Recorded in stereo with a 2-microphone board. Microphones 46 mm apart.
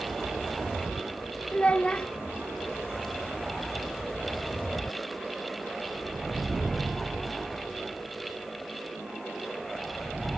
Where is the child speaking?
25° left (ahead or behind), 0.7 m.